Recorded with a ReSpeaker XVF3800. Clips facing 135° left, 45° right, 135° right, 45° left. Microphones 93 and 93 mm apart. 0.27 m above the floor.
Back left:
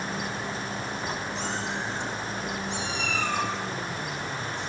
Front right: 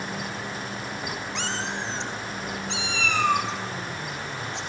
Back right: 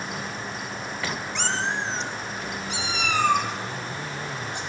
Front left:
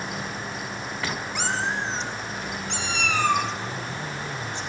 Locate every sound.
1.4 s a cat meowing: 35° right, 1.6 m; by 4.6 s 60° right, 4 m